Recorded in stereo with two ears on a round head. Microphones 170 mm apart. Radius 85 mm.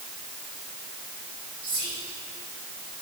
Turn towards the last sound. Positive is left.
turn(degrees=-70)  # may be behind; listen again after turning